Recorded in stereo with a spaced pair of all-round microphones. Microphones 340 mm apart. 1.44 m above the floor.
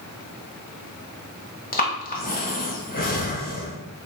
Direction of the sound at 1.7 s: 25° left (ahead or behind).